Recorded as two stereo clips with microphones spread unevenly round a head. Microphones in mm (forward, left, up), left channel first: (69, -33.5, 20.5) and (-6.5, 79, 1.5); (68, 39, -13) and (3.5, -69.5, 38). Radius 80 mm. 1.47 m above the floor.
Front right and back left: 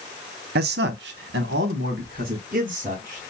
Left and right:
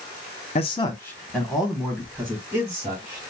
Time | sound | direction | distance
0.6 | a man speaking | 120° left | 0.7 m